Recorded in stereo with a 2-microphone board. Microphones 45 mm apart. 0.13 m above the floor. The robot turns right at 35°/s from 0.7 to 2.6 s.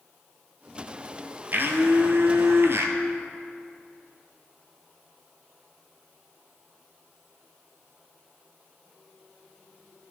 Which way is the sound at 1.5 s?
120° right.